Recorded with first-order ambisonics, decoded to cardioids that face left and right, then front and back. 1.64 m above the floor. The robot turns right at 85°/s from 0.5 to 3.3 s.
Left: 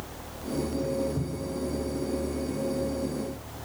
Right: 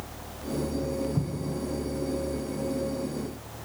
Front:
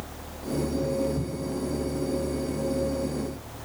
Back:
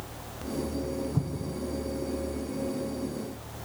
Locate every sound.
1.1 s an explosion: 165° right, 2 m; by 1.6 s 125° right, 2 m